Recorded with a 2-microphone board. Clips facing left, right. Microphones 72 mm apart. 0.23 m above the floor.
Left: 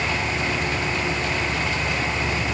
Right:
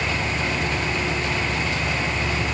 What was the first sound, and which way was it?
Only background noise.